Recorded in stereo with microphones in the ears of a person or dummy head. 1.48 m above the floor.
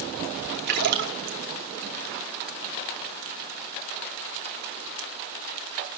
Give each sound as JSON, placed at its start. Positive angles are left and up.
{"t": 0.7, "sound": "a splash", "side_deg": -55, "distance_m": 2.5}